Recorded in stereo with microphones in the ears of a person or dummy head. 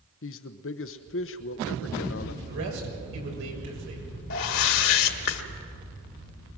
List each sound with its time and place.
0.2 s a man speaking: 60° left (ahead or behind), 1.0 m
2.4 s a man speaking: 65° right (ahead or behind), 7 m
4.3 s a whoosh: 70° left (ahead or behind), 1.9 m